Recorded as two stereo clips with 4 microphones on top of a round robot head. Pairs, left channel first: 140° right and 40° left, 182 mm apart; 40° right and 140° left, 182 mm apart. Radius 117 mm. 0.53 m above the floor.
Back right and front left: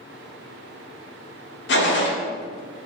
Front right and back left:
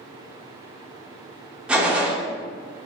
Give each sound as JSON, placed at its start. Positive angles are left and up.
{"t": 1.7, "sound": "a gunshot", "azimuth_deg": -140, "distance_m": 0.7}